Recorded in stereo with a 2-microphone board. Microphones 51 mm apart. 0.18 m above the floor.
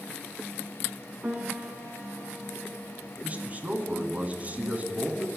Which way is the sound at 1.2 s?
25° right (ahead or behind).